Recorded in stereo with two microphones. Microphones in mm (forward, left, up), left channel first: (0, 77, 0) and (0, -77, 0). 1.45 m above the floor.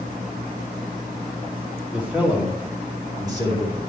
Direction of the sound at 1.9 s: 10° right (ahead or behind).